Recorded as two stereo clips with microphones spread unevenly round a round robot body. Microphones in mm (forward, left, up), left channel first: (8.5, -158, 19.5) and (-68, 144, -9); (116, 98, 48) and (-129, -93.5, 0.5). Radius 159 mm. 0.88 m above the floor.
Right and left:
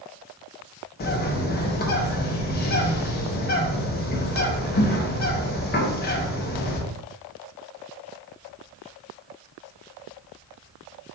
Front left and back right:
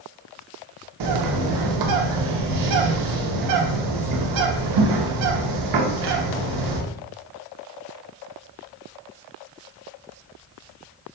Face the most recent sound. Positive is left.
turn(degrees=-140)